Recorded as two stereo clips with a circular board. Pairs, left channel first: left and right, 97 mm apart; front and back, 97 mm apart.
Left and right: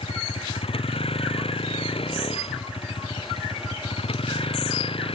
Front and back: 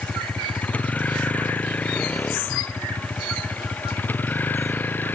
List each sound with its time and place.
0.0 s a vehicle: 75° left; by 5.1 s 70° left